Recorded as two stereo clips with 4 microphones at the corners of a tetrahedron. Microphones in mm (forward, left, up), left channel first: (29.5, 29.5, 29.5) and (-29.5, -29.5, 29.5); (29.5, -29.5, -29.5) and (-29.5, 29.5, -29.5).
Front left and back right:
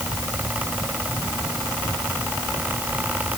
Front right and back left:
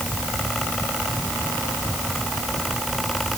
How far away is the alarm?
I don't hear an alarm.